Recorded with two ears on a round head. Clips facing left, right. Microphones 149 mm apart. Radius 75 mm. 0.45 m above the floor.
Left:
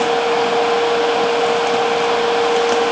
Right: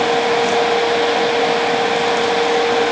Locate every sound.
Only background noise.